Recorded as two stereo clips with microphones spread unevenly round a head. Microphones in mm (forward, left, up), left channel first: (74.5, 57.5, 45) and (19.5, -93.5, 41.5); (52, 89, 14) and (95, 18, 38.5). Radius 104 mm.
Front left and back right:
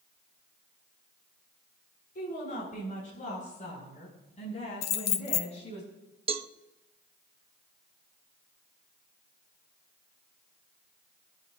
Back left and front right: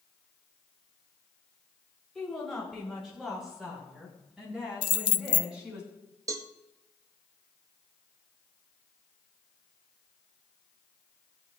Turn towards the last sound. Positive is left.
turn(degrees=-110)